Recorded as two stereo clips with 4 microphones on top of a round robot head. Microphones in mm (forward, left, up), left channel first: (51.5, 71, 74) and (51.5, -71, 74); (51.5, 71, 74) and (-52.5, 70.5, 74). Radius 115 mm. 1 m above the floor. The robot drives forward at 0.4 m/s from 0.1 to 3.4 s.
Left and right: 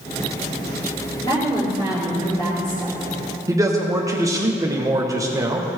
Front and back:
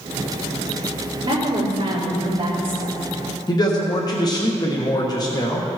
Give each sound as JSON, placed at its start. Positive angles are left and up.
{"t": 1.2, "sound": "a woman speaking", "azimuth_deg": 135, "distance_m": 3.5}
{"t": 3.5, "sound": "a man speaking", "azimuth_deg": -30, "distance_m": 1.1}